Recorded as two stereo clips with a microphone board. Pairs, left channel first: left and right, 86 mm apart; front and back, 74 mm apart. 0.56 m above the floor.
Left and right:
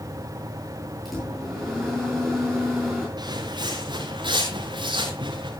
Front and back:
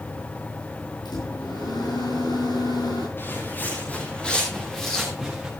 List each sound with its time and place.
1.1 s a microwave: straight ahead, 9.5 m
3.2 s footsteps: 60° right, 5.5 m; by 5.5 s 100° right, 5.5 m